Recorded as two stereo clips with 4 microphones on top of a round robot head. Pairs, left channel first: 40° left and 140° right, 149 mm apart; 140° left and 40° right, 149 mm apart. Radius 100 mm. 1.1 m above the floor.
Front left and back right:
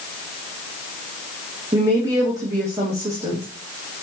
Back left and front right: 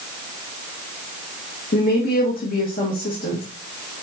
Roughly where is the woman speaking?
Behind left.